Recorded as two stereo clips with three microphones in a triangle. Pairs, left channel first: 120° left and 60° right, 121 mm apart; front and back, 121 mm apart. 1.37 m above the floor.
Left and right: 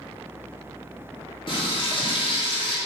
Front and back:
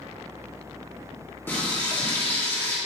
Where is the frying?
70° left, 1.8 m.